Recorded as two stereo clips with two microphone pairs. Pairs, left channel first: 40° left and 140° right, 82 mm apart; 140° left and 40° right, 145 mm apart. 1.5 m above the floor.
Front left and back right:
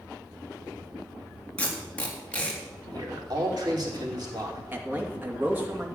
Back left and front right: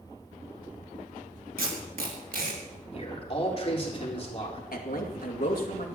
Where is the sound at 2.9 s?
170° right, 4 m.